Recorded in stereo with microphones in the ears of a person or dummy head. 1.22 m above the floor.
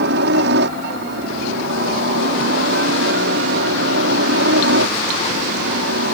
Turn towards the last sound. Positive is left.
turn(degrees=-65)  # may be behind; listen again after turning